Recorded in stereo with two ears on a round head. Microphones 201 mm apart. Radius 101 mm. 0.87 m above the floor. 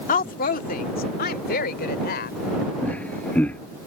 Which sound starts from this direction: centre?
Laughter, at 2.8 s.